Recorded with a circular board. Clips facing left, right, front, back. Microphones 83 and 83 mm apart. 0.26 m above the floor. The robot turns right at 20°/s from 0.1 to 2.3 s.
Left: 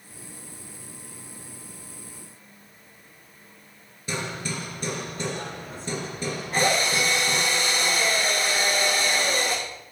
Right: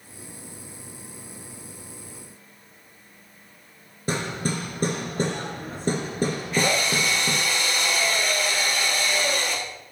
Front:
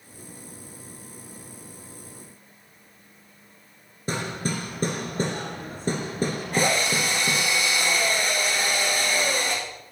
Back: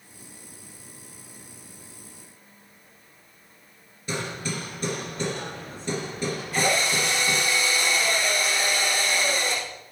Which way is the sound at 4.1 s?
50° right.